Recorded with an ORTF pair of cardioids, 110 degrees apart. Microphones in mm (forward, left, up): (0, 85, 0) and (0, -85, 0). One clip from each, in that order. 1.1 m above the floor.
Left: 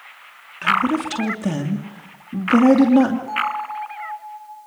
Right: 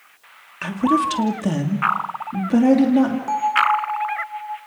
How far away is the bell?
About 2 m.